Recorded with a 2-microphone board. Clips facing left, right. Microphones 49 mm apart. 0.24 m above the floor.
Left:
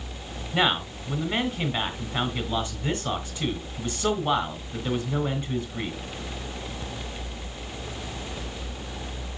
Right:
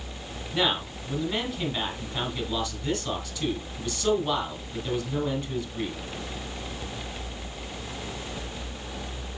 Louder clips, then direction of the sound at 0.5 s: Left 3 dB; 30° left (ahead or behind).